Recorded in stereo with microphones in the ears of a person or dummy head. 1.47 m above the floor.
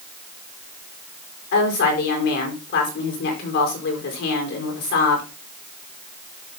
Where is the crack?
I don't hear a crack.